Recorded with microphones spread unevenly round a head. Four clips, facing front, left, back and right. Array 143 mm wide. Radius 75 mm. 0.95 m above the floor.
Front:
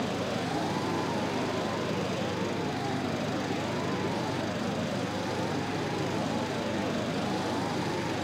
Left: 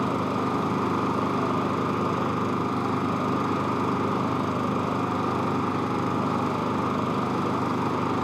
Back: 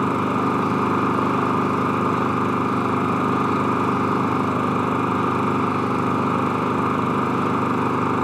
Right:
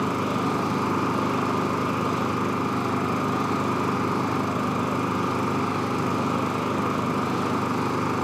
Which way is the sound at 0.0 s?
175° right.